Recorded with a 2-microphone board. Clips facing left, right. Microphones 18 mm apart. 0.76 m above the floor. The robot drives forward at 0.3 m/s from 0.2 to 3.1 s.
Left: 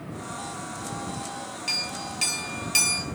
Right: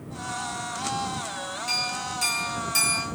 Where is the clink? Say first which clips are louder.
Right 1 dB; 30° left (ahead or behind), 1.0 m; by 3.0 s 45° left (ahead or behind), 0.6 m.